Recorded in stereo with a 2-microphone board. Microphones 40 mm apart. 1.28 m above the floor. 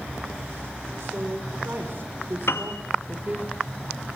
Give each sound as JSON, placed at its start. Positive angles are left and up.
{"t": 1.0, "sound": "a woman speaking", "side_deg": -75, "distance_m": 4.0}
{"t": 2.5, "sound": "a piano", "side_deg": 75, "distance_m": 1.7}